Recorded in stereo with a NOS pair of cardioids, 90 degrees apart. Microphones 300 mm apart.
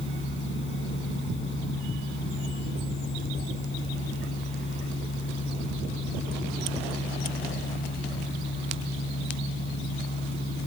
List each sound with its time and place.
0.0 s a machine running: 40° left